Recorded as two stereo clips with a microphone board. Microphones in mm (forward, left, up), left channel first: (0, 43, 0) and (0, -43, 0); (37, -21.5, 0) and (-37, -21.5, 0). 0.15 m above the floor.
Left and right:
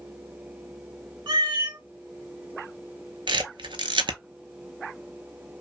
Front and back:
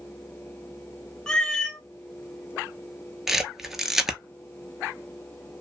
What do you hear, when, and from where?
1.3 s a cat meowing: 80° right, 0.6 m
3.3 s a camera shutter: 95° right, 0.6 m